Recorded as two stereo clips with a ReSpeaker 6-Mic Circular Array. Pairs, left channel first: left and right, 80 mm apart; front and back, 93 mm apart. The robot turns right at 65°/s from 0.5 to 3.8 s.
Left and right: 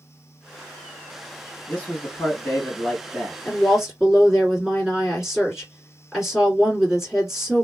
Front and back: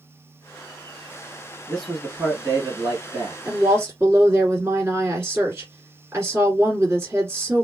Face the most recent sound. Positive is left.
turn(degrees=-170)